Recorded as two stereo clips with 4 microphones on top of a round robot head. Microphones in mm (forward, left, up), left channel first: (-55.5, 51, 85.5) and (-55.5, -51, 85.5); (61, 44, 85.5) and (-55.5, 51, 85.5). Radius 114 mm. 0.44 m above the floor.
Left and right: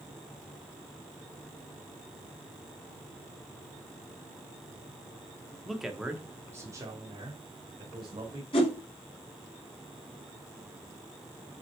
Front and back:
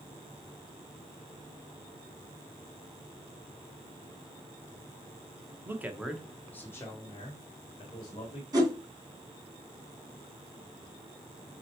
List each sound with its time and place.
5.7 s a man speaking: 175° left, 1.2 m; by 8.4 s 45° right, 3 m
8.5 s a whoosh: 120° left, 2.5 m